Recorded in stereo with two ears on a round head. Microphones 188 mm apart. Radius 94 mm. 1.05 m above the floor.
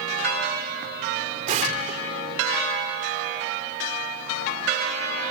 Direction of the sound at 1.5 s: 35° right (ahead or behind).